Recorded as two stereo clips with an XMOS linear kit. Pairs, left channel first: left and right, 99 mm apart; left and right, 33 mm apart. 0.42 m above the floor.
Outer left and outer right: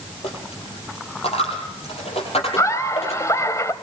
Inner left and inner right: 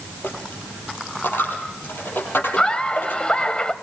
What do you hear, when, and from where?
0.2 s a dropped coin: 85° left, 6.5 m
2.6 s laughter: 30° left (ahead or behind), 1.6 m